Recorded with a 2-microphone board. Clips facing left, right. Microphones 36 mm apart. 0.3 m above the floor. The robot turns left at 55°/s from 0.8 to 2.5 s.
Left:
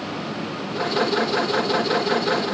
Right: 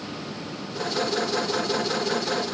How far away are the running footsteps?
No running footsteps in this recording.